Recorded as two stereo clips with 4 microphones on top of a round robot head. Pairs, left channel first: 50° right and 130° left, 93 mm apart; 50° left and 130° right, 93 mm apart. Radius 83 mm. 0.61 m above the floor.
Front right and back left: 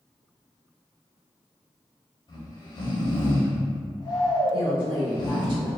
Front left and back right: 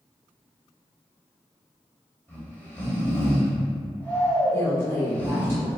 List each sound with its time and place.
2.3 s snoring: 20° right, 1.7 m
4.5 s a woman speaking: 120° left, 1.7 m